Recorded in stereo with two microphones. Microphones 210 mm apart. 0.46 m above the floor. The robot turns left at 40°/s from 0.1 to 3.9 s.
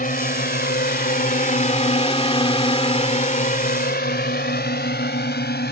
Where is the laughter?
No laughter in this recording.